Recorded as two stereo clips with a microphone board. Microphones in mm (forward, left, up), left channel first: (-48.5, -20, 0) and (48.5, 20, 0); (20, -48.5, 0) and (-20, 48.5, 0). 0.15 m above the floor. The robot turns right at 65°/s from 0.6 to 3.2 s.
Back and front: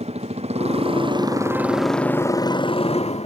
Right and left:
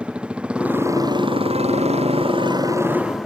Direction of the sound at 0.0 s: 30° left.